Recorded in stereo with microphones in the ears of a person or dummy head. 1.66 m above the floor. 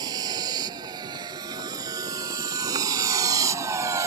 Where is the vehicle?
20° right (ahead or behind); by 4.1 s 15° right (ahead or behind).